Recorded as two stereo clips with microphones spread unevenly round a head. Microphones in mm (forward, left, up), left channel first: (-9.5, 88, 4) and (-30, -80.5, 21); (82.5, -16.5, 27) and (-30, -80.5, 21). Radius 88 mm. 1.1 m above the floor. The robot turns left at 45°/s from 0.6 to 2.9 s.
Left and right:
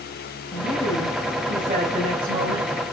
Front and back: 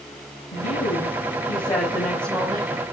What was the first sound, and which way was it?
A woman speaking, 20° left.